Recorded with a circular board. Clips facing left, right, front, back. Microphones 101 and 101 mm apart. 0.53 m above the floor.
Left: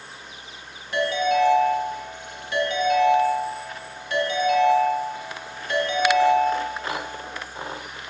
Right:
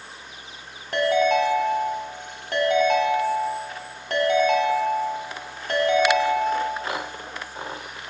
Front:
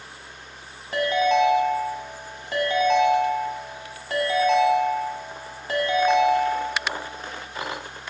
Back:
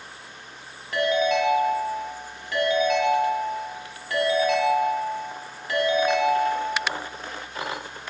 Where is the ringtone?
55° right, 1.1 m.